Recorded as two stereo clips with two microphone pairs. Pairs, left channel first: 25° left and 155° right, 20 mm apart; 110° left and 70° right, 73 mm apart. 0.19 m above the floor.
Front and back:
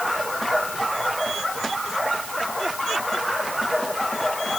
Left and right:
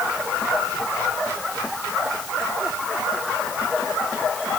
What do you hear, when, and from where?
Only background noise.